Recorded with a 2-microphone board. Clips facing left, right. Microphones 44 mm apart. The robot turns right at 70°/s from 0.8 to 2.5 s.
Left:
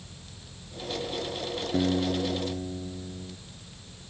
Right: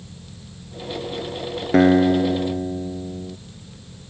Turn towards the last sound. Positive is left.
turn(degrees=-45)